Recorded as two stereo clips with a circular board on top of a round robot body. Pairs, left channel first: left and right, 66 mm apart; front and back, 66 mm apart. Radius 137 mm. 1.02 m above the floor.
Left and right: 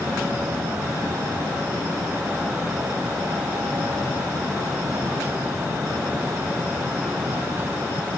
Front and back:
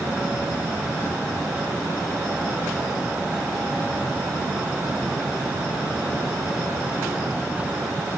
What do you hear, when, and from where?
Only background noise.